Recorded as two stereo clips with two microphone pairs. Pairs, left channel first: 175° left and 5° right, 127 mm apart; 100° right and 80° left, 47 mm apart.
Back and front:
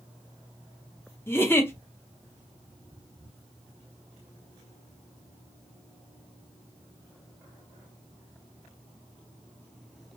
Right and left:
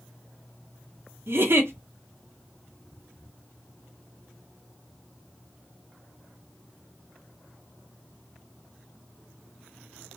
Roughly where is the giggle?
Left.